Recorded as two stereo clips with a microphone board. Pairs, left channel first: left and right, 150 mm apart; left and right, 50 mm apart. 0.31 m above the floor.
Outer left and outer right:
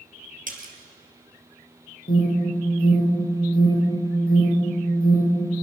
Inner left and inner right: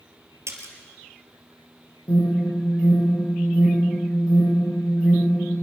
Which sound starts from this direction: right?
A splash, at 0.5 s.